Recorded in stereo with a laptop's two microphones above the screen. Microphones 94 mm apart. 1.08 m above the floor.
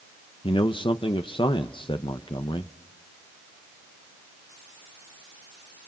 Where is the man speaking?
60° left (ahead or behind), 0.9 m.